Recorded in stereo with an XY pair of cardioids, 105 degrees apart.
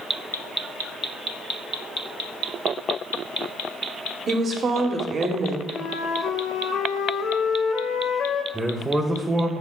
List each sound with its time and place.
4.3 s a woman speaking: 50° right, 1.2 m
5.7 s a flute: 70° left, 0.9 m
8.5 s a man speaking: 15° right, 0.9 m